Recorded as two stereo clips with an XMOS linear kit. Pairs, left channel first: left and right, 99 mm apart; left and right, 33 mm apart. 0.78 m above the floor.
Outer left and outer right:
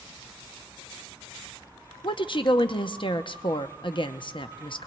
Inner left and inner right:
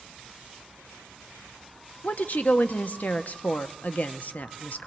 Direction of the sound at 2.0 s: 55° left (ahead or behind).